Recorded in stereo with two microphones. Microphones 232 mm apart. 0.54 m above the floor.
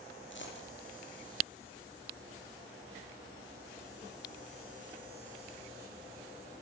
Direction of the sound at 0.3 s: 60° left (ahead or behind).